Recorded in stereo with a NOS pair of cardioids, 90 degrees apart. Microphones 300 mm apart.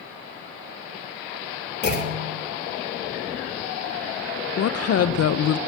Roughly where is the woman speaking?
Ahead left.